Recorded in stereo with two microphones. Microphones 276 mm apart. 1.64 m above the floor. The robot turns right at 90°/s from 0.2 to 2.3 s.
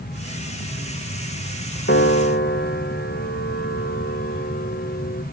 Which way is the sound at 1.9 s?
70° left.